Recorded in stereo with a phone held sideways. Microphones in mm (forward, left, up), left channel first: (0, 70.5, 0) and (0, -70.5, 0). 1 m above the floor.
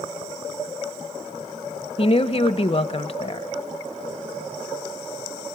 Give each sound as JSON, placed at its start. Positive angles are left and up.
{"t": 2.0, "sound": "a woman speaking", "side_deg": 45, "distance_m": 0.9}